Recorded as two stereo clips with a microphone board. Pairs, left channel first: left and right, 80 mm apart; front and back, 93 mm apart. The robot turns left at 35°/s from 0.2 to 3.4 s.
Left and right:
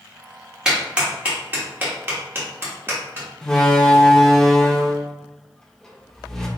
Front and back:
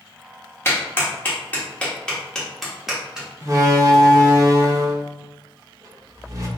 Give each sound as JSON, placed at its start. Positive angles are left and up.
{"t": 0.7, "sound": "a clap", "azimuth_deg": -20, "distance_m": 1.1}
{"t": 3.4, "sound": "a door slam", "azimuth_deg": 170, "distance_m": 0.6}